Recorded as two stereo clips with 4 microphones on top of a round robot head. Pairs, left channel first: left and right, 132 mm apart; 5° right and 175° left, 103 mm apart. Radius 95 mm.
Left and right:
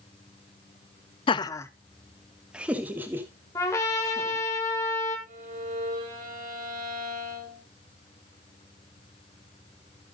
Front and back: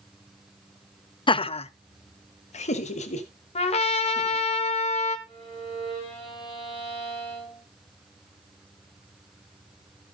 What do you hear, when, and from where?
1.3 s laughter: 40° left, 0.6 m; by 4.5 s 20° right, 2.5 m
3.5 s a trumpet: 15° left, 1.3 m
5.3 s a violin: 55° right, 4.5 m